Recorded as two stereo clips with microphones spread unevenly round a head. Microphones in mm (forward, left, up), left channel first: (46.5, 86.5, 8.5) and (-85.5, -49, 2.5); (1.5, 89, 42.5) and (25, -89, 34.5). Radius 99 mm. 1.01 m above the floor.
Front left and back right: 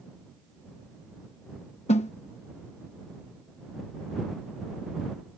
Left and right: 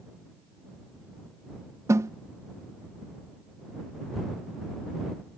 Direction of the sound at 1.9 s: 10° right.